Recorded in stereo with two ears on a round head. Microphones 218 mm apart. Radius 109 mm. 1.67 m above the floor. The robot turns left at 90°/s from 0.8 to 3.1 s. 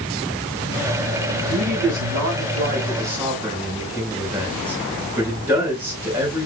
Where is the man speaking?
25° right, 4 m; by 6.5 s 170° right, 4 m.